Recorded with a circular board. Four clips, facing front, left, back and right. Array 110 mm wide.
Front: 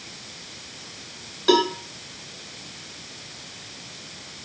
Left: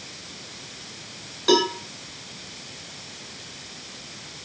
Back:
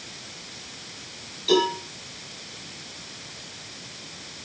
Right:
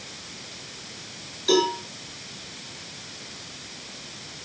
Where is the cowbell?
35° left, 4 m.